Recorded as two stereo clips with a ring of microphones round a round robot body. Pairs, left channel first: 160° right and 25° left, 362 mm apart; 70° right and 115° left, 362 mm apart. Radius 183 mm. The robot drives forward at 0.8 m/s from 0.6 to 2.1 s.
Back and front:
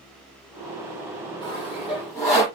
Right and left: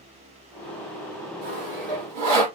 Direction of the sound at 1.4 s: 125° left.